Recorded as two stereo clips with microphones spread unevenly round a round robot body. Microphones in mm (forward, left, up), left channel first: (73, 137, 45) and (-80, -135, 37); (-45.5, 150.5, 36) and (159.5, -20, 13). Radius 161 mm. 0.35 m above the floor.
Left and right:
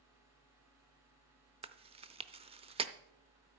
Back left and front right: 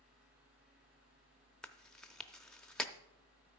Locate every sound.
1.6 s chewing: 120° right, 0.6 m